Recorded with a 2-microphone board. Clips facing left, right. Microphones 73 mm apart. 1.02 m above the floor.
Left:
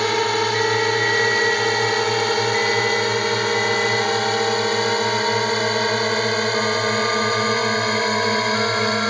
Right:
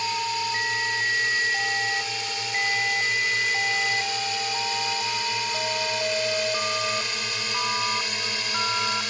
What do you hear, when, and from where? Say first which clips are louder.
0.0 s a drone: left 8 dB; 60° left (ahead or behind); by 9.1 s 50° left (ahead or behind)